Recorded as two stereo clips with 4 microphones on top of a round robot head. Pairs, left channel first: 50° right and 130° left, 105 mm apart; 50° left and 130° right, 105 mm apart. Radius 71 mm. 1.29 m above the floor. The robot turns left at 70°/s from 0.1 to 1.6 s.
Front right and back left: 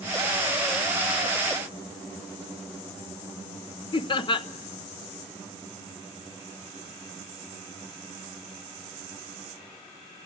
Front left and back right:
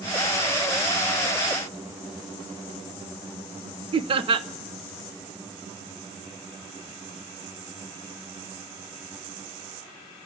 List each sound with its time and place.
3.9 s laughter: 95° right, 0.9 m